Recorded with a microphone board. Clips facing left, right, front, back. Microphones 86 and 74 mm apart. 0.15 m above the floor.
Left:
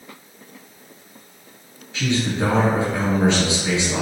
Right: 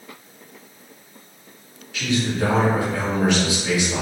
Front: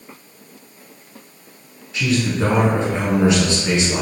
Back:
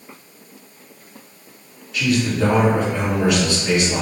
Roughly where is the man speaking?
Ahead left.